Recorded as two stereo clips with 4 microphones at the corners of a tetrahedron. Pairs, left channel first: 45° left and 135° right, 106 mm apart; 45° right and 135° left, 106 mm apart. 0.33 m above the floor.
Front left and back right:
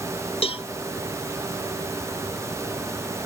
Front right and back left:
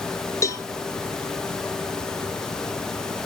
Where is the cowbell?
15° left, 0.9 m.